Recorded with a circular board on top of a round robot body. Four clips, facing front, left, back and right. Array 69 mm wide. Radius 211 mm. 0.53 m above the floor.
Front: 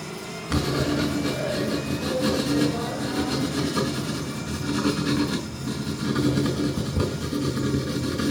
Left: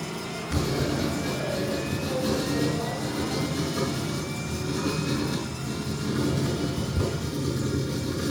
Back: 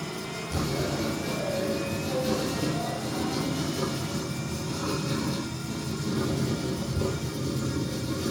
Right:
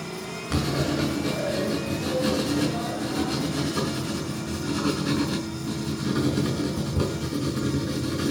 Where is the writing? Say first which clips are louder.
Right 2 dB, front 6 dB; 25° right, 6.5 m.